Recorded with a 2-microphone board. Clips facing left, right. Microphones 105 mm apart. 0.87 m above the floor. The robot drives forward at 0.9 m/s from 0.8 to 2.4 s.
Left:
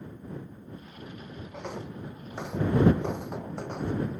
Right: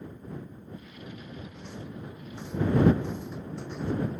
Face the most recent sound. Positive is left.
turn(degrees=50)  # may be behind; listen again after turning